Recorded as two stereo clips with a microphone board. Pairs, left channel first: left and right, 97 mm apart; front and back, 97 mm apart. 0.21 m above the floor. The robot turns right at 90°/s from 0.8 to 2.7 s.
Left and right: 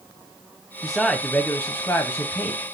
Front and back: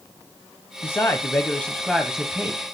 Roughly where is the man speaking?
Ahead.